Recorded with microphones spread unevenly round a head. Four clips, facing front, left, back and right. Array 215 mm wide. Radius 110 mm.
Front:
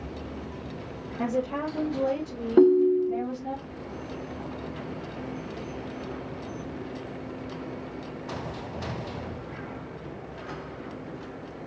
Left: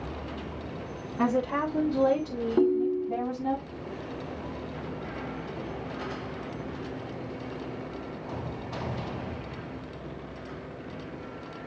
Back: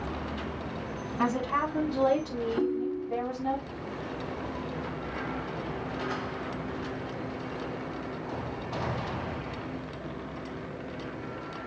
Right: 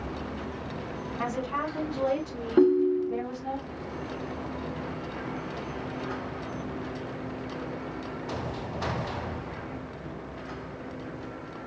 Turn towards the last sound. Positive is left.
turn(degrees=-30)